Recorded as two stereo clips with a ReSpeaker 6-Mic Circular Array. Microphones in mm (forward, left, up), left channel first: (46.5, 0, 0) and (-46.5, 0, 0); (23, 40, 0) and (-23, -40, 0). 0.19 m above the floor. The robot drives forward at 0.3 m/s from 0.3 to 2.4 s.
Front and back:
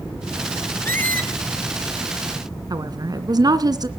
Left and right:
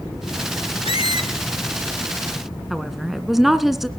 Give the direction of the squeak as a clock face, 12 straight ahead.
10 o'clock.